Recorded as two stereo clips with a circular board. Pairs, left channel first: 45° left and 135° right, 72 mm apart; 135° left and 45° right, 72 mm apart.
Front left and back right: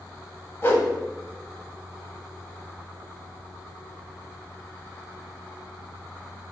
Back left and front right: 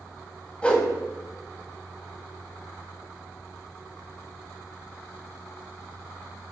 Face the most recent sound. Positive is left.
turn(degrees=75)